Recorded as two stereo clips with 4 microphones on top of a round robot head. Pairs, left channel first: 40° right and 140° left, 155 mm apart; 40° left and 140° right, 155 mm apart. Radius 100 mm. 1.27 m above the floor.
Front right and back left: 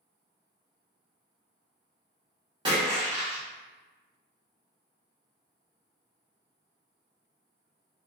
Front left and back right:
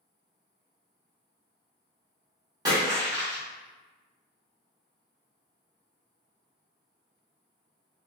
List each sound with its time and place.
2.6 s a splash: 175° left, 0.9 m